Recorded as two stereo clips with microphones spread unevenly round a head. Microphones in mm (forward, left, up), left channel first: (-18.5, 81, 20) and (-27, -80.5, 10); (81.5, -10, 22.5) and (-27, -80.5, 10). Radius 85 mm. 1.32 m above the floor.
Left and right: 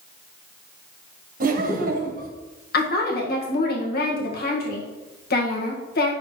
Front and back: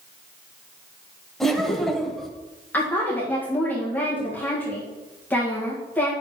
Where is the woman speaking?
115° left, 1.6 m.